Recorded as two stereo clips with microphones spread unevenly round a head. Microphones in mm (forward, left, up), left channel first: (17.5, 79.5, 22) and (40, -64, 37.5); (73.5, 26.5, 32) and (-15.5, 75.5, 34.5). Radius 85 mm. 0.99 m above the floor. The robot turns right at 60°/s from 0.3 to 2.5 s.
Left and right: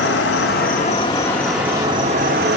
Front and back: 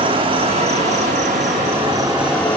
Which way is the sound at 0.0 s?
120° left.